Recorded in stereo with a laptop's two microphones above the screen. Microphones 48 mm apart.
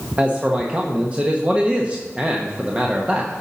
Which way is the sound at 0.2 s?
30° right (ahead or behind).